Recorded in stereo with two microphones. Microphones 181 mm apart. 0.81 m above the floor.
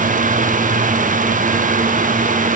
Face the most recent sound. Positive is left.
No sound to turn to.